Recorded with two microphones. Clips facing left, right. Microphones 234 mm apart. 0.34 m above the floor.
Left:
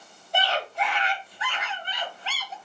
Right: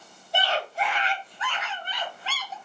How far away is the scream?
About 1.2 m.